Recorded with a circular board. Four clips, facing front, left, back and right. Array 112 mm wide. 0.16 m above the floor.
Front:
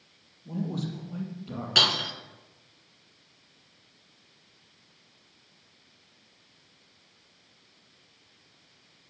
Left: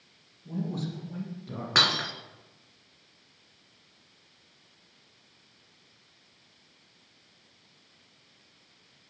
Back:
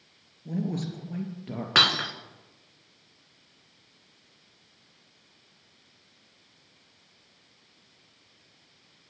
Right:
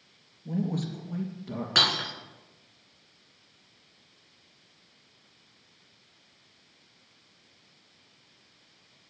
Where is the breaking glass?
165° left, 1.1 m.